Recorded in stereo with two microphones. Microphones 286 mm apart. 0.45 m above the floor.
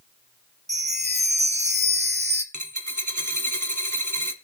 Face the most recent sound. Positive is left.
turn(degrees=-85)